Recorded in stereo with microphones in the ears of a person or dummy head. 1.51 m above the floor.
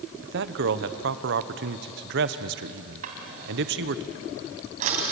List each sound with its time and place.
0.2 s a man speaking: 60° right (ahead or behind), 1.0 m
3.0 s a drawer: 45° right (ahead or behind), 3 m